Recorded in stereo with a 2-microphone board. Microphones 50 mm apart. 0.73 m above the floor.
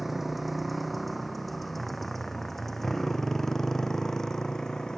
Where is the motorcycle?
5° right (ahead or behind); by 5.0 s 10° left (ahead or behind).